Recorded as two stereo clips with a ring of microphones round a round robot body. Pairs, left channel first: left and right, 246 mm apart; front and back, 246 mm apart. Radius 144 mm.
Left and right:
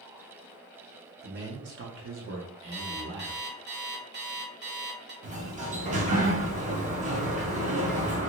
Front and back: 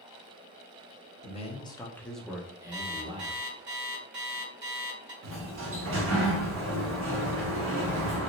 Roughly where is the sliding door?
Behind right.